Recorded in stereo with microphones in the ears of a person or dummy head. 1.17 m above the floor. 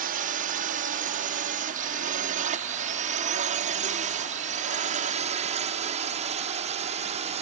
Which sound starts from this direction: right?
A drone, at 0.0 s.